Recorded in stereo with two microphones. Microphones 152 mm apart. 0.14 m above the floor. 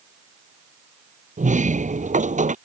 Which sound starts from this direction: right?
A sliding door, at 1.4 s.